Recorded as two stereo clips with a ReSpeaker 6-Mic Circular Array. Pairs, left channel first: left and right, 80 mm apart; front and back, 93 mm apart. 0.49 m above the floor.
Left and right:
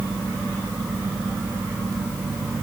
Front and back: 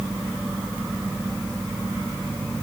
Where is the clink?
I don't hear a clink.